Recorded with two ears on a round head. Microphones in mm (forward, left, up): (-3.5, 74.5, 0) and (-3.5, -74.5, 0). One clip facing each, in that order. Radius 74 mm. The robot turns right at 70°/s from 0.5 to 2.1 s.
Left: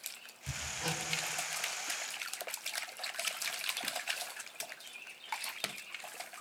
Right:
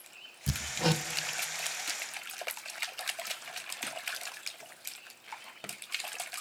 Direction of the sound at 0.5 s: 70° right (ahead or behind).